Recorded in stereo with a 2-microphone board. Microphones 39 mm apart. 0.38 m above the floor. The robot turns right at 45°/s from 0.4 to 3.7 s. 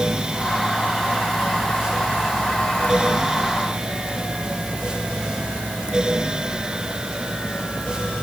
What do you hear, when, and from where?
Only background noise.